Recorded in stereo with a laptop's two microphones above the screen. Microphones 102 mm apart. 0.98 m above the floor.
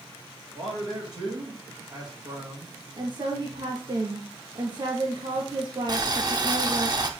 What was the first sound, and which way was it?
A man speaking, 45° right (ahead or behind).